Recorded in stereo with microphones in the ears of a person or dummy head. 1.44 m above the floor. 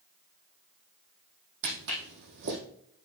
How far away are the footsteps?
About 3 m.